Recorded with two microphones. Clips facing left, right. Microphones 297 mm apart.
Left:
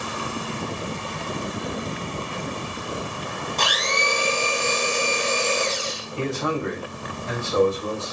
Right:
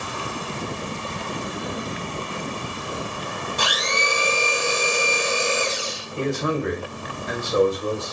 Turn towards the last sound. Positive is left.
turn(degrees=-20)  # may be behind; listen again after turning